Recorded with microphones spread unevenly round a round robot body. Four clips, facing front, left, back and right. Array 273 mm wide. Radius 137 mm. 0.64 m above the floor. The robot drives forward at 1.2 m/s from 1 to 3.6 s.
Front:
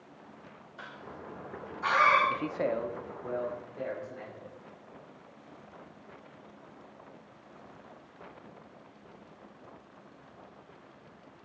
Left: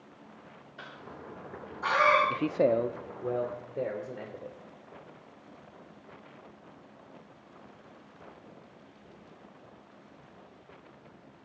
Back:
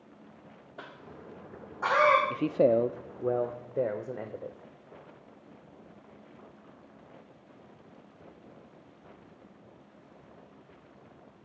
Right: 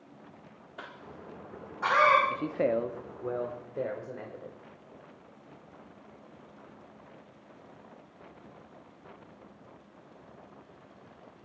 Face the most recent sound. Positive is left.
turn(degrees=175)